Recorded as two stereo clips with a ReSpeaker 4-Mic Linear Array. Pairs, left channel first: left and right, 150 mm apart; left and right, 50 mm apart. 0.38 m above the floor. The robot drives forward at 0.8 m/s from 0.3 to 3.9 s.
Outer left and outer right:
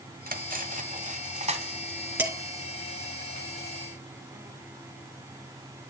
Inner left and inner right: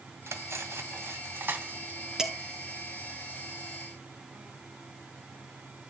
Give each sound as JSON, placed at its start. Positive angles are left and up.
{"t": 0.3, "sound": "cutlery clinking", "side_deg": -65, "distance_m": 1.4}
{"t": 2.2, "sound": "dishes clattering", "side_deg": -15, "distance_m": 4.0}